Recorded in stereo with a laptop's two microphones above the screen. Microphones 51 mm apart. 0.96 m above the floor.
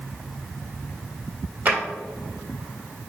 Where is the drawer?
40° right (ahead or behind), 1.5 m.